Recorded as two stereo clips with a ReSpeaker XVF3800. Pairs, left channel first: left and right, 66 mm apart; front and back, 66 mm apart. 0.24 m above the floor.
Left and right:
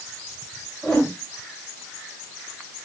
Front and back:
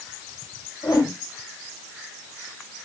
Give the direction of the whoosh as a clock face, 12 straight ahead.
12 o'clock.